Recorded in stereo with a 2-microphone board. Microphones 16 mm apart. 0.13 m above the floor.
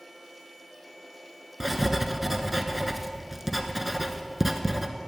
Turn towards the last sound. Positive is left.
turn(degrees=-15)  # may be behind; listen again after turning